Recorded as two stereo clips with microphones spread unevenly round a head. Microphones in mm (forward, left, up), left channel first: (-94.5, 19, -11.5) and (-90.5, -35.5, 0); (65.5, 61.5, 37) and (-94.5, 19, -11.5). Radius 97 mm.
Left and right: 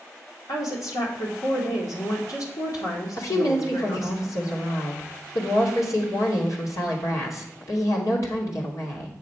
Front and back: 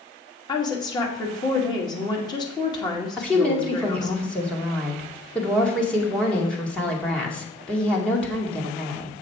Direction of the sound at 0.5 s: 85° left.